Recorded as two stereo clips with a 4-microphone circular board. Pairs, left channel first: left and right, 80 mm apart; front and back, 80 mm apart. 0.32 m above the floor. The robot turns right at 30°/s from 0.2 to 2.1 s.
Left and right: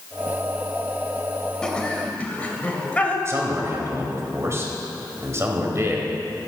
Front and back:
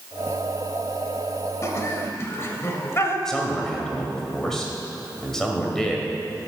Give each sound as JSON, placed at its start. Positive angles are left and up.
{"t": 1.6, "sound": "laughter", "azimuth_deg": 15, "distance_m": 1.2}
{"t": 3.2, "sound": "a man speaking", "azimuth_deg": -80, "distance_m": 1.6}